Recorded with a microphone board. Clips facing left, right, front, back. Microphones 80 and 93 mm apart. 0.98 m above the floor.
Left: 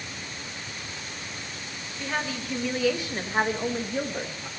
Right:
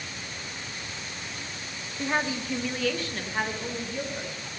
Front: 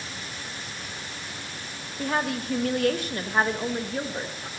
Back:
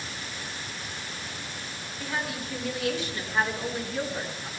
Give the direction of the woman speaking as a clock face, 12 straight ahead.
1 o'clock.